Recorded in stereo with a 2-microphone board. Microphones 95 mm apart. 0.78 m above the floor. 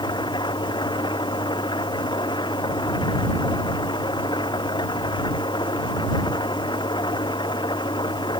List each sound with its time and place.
0.0 s an engine running: 55° left (ahead or behind)